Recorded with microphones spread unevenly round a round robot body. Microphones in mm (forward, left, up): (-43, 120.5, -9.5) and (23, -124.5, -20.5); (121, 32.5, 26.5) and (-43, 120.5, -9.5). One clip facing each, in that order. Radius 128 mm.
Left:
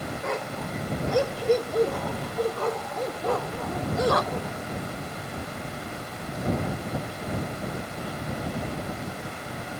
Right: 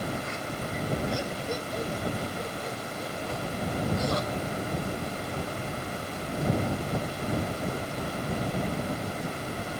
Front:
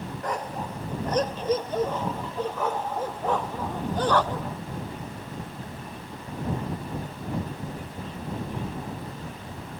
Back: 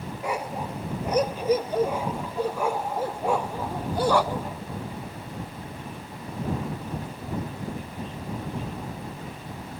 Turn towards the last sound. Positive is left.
turn(degrees=70)